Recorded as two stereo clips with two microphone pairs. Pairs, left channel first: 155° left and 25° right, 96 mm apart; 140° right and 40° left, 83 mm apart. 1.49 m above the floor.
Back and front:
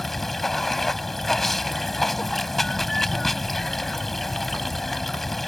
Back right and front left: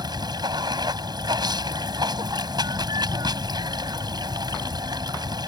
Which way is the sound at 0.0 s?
70° left.